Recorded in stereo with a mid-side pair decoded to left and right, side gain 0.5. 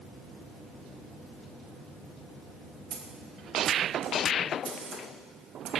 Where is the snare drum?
70° right, 0.9 m.